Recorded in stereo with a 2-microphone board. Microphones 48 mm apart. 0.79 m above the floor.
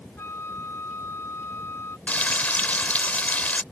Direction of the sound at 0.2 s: 65° left (ahead or behind).